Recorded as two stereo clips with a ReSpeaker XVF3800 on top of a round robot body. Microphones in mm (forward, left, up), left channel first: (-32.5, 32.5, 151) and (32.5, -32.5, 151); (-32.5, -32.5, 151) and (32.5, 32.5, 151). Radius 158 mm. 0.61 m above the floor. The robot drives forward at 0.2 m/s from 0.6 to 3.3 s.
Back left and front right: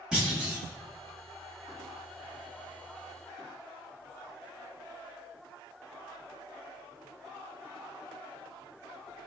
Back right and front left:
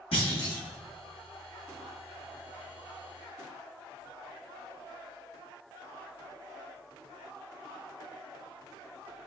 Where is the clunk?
125° right, 1.3 m.